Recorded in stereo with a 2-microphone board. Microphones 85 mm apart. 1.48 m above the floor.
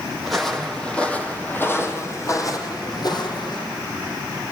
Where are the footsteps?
5° right (ahead or behind), 4.5 m; by 3.6 s 60° left (ahead or behind), 4.5 m.